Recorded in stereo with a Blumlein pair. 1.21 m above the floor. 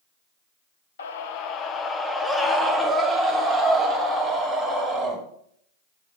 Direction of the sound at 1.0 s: 65° left.